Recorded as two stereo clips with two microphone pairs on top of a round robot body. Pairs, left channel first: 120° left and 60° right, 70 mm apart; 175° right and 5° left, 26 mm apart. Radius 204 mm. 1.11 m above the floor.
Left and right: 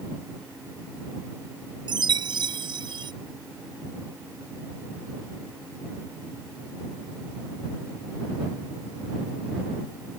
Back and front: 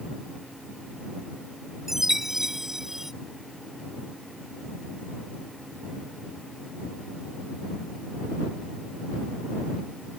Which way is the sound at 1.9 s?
70° right.